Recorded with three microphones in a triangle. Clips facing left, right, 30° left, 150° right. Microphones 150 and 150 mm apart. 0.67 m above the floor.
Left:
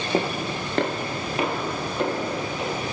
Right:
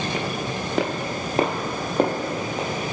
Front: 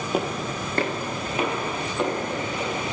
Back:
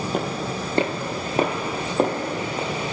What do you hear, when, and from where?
0.1 s footsteps: 115° left, 0.7 m; by 2.7 s 110° right, 1.6 m